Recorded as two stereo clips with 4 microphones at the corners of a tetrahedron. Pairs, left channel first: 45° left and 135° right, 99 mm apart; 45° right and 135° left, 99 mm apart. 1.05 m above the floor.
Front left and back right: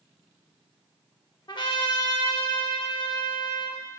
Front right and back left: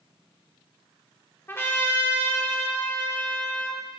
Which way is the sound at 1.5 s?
20° left.